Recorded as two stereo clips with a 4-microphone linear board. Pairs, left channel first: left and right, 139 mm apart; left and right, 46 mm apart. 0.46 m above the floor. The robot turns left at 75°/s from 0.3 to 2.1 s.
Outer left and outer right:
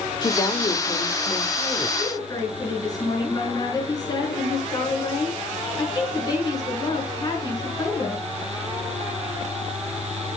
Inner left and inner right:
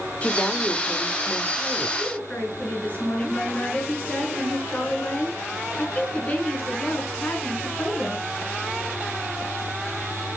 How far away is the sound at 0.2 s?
About 1.2 m.